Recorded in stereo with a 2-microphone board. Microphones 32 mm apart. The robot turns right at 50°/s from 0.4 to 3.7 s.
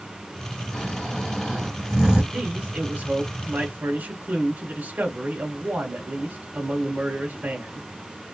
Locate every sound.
0.7 s snoring: 135° left, 1.6 m; by 2.2 s 150° right, 1.6 m
2.3 s a man speaking: 150° right, 2.5 m; by 7.8 s 85° right, 2.5 m